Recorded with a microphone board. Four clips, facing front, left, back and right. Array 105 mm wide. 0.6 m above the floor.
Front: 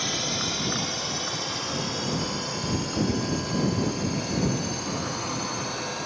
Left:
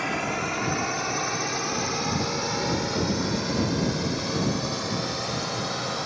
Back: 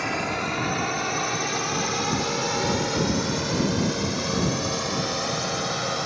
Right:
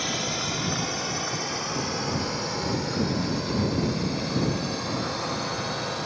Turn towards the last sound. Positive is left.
turn(degrees=165)